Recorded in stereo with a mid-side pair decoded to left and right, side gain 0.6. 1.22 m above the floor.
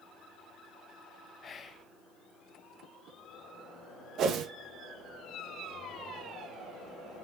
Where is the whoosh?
55° right, 1.3 m.